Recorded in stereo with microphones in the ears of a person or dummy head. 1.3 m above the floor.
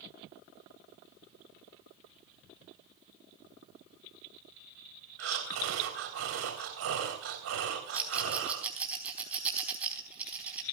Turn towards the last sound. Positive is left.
turn(degrees=-5)  # may be behind; listen again after turning